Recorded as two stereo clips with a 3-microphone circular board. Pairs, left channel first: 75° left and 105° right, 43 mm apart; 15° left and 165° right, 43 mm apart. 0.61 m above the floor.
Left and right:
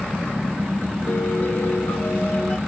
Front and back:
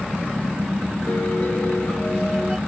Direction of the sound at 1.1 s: 55° left.